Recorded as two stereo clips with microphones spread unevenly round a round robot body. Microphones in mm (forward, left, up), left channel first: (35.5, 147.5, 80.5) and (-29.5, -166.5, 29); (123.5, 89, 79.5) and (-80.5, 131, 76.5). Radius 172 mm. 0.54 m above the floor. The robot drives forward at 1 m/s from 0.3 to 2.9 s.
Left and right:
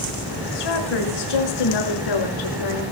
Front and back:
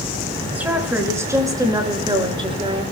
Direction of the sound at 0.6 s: 85° left.